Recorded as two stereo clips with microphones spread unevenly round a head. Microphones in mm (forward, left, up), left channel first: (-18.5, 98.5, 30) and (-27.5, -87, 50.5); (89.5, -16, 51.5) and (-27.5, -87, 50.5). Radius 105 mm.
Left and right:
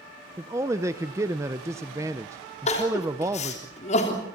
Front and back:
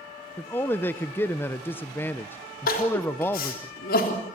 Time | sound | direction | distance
0.4 | a man speaking | 35° right | 0.6 m
2.7 | crying | 30° left | 3.5 m